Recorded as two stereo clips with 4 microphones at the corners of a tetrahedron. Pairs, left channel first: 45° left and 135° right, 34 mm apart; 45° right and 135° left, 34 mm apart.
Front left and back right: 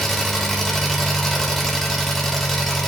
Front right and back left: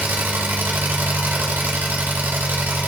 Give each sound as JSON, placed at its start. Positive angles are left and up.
{"t": 0.0, "sound": "an engine running", "azimuth_deg": 130, "distance_m": 1.5}